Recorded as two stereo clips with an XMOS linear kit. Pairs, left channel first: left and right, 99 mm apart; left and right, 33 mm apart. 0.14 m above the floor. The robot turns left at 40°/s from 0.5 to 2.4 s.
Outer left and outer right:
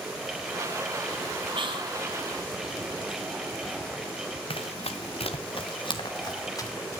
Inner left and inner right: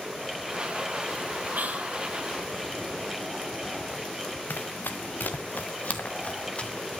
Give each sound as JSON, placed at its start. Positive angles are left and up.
{"t": 1.5, "sound": "whispering", "side_deg": -60, "distance_m": 3.0}
{"t": 4.5, "sound": "running footsteps", "side_deg": 70, "distance_m": 1.2}